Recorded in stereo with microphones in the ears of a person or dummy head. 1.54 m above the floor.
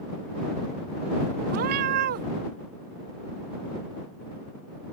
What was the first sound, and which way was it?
A cat meowing, 45° right (ahead or behind).